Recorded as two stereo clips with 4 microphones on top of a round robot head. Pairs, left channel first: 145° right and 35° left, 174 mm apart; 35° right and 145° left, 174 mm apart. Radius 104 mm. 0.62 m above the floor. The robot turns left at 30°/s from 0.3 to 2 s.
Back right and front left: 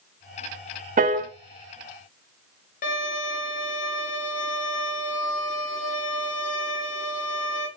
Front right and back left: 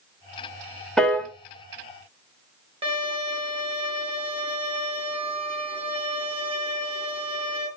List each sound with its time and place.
1.0 s a piano: 50° left, 0.9 m; by 1.3 s 40° left, 0.9 m
2.8 s a violin: 165° right, 1.7 m